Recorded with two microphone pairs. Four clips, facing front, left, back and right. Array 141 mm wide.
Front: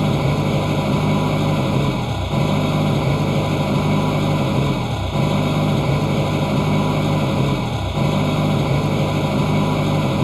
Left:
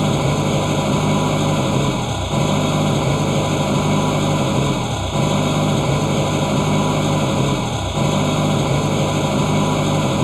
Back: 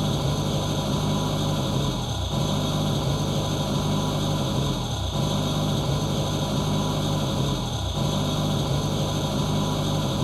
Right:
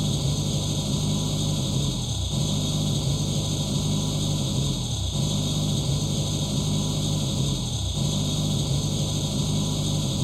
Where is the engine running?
65° left.